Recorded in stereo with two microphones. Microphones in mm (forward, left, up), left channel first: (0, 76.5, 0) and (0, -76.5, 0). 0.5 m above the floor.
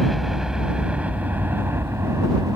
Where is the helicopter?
Centre (ahead or behind); by 2.6 s 20° right (ahead or behind).